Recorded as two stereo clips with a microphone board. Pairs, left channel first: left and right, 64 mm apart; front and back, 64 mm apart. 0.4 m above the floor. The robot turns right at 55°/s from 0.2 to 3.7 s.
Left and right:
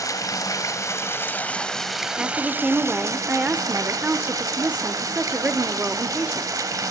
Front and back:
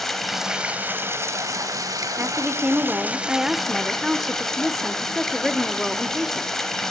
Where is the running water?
85° left, 1.4 m; by 6.9 s 80° right, 1.4 m.